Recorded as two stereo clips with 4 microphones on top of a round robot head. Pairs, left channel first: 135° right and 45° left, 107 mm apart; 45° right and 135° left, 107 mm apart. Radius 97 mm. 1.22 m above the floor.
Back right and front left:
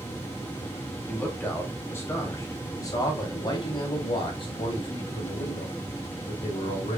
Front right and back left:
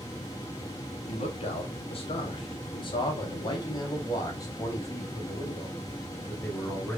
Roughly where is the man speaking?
Ahead right.